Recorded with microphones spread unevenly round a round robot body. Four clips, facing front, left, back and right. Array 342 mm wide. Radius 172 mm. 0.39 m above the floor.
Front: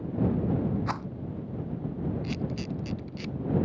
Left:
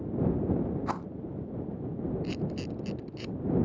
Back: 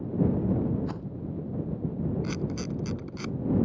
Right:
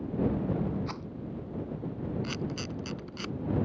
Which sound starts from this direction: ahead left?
A rattle, at 0.9 s.